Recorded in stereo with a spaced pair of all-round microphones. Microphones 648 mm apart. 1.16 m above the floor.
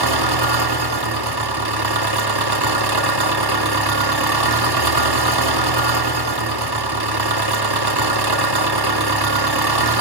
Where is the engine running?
35° right (ahead or behind), 1.0 m.